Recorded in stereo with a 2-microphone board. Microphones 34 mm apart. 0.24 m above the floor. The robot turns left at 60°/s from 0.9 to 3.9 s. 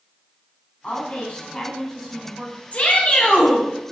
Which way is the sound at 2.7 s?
105° left.